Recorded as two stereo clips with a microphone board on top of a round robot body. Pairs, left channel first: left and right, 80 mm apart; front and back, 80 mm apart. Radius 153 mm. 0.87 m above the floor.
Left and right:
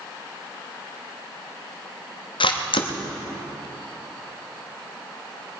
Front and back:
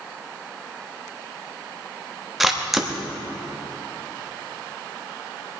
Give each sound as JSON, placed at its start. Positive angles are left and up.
{"t": 2.4, "sound": "a camera shutter", "azimuth_deg": 90, "distance_m": 1.2}